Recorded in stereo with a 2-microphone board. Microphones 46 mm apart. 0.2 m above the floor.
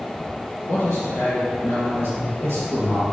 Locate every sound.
0.7 s a man speaking: 60° left (ahead or behind), 2.5 m; by 3.0 s 70° left (ahead or behind), 3.5 m